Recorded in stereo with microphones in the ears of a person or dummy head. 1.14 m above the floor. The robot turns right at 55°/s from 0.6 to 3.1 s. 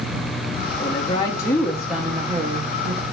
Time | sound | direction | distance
0.8 | a woman speaking | 125° left | 0.8 m